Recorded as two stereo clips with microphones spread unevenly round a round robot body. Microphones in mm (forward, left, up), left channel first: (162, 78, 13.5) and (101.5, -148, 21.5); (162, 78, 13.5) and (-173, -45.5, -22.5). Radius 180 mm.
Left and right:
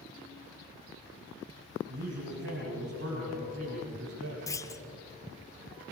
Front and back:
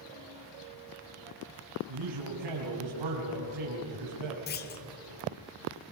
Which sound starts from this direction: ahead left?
A clunk, at 4.5 s.